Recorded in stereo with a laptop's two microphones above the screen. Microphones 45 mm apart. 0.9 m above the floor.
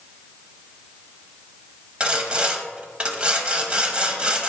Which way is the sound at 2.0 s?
25° right (ahead or behind).